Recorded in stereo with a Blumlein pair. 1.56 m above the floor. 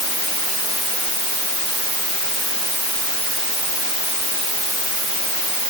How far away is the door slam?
No door slam in this recording.